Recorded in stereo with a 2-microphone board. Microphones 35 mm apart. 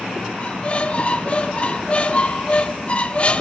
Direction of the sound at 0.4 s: 35° left (ahead or behind).